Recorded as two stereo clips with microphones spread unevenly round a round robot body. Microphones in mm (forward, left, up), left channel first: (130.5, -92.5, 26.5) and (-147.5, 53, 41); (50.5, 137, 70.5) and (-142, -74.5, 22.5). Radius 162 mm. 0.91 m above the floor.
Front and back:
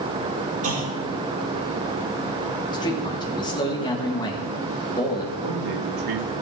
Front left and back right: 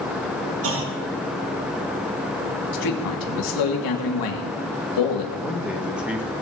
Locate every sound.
0.6 s a clunk: 165° right, 2.0 m
2.7 s a man speaking: 50° left, 1.8 m
5.4 s a man speaking: 145° left, 1.7 m